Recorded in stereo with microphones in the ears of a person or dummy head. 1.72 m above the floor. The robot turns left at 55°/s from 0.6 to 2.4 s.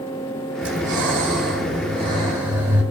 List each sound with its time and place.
0.6 s breathing: 70° right, 4 m; by 2.8 s 170° right, 4 m